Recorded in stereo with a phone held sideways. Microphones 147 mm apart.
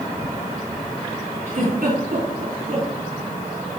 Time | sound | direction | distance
1.5 | a giggle | 80° right | 3 m